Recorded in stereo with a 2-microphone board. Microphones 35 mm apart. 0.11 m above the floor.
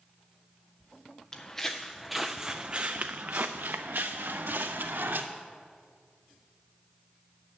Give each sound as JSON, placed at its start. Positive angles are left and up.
{"t": 1.3, "sound": "footsteps", "side_deg": 20, "distance_m": 0.9}